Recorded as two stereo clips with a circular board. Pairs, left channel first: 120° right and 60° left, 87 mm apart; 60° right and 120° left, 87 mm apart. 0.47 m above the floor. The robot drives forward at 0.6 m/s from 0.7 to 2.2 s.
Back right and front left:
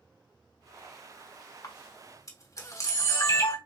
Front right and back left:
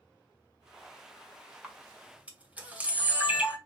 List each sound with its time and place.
1.6 s a camera shutter: 165° right, 1.3 m; by 3.6 s 170° right, 1.6 m